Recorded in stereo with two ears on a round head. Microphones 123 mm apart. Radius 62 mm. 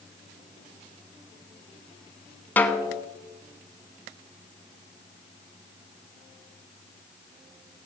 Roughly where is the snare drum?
Centre.